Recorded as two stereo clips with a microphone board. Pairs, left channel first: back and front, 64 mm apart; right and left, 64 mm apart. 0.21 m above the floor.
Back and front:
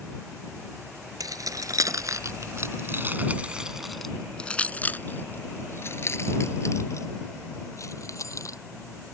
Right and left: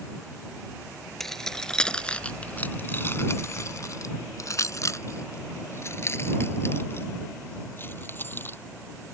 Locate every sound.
1.2 s keys jangling: 5° right; by 8.6 s 150° right